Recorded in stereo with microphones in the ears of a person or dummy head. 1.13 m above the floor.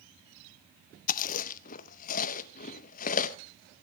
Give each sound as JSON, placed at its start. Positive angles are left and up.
{"t": 1.1, "sound": "chewing", "side_deg": 45, "distance_m": 0.7}